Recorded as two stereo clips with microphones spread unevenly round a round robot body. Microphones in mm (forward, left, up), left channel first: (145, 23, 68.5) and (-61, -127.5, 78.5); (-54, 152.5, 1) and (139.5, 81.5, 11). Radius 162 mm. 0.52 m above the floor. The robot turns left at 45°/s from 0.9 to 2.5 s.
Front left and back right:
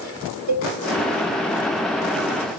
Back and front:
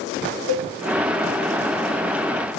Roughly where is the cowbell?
Behind right.